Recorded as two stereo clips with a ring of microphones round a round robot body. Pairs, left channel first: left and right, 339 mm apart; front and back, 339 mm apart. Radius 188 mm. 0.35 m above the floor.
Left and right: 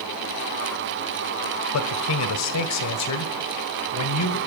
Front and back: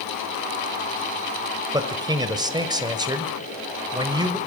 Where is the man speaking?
105° left, 1.7 m.